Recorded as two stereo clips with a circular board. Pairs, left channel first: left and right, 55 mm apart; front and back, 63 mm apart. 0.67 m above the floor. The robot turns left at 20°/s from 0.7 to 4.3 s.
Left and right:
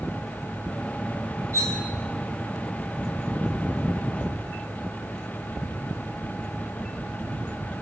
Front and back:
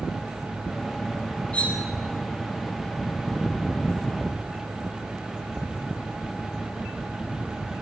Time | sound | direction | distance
1.5 | cutlery clinking | 65° right | 2.5 m